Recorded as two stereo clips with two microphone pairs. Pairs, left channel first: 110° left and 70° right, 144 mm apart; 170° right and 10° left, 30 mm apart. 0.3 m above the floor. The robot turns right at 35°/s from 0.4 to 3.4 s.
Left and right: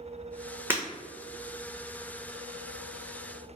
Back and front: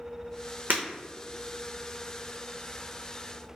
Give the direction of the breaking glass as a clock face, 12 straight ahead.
12 o'clock.